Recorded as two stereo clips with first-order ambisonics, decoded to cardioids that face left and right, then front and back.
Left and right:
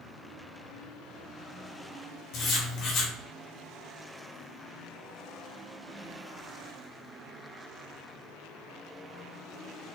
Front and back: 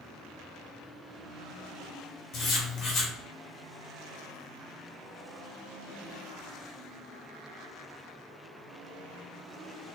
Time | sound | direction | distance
2.3 | writing | 60° left | 1.7 m